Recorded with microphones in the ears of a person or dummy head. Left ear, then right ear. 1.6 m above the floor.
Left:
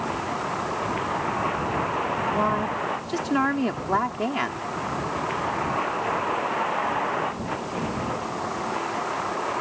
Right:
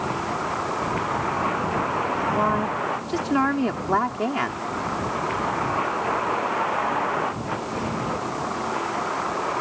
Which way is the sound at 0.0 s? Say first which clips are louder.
Right 2 dB; 5° left (ahead or behind).